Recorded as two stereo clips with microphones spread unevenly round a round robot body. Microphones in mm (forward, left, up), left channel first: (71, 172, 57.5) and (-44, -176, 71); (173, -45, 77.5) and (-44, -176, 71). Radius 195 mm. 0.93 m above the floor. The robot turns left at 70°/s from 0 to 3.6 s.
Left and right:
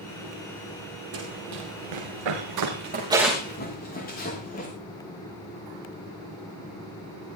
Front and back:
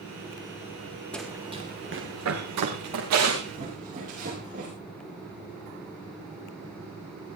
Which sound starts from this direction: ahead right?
Running footsteps, at 1.1 s.